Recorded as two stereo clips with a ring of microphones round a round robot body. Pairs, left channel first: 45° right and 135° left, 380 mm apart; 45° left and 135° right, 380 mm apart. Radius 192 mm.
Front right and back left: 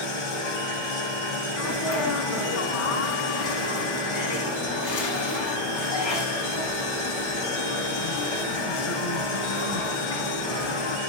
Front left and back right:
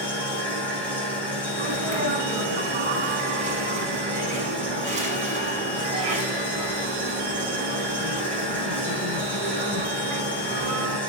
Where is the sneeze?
65° right, 8 m.